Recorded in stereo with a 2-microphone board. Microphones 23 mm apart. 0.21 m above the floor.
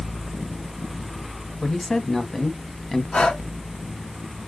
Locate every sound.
1.6 s a man speaking: 20° left (ahead or behind), 1.1 m
3.1 s breathing: 60° left (ahead or behind), 1.5 m